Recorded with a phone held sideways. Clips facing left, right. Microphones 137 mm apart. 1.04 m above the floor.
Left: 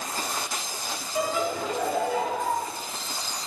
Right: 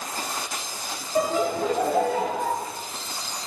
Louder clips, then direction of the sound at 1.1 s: Right 4 dB; 40° right (ahead or behind).